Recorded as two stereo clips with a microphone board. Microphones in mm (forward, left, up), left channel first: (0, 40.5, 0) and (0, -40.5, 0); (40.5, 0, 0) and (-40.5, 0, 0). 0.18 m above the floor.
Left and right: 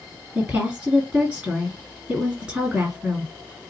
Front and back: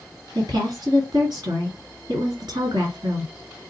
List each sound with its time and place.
0.3 s a woman speaking: 160° right, 2 m